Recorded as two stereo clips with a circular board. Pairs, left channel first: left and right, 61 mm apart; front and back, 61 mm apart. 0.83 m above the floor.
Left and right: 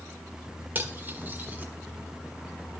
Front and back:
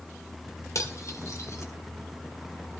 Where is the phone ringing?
I don't hear a phone ringing.